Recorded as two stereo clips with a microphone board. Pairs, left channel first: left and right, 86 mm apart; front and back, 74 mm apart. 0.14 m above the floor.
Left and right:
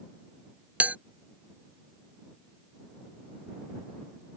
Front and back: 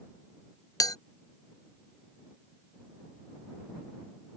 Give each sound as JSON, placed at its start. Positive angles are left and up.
{"t": 0.8, "sound": "a bell", "azimuth_deg": -20}